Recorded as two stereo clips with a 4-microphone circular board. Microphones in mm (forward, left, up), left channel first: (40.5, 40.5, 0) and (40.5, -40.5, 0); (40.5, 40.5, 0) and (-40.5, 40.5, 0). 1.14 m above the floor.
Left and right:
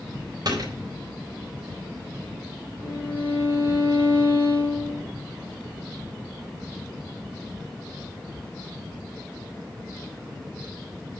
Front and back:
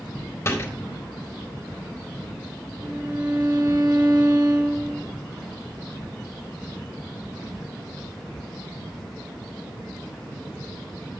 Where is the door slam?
55° right, 4 m.